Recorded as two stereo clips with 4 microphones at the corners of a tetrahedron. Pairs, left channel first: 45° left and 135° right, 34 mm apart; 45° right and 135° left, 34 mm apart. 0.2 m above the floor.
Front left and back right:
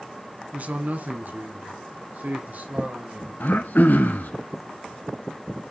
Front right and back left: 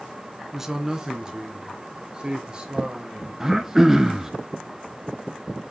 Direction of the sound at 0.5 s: 150° right.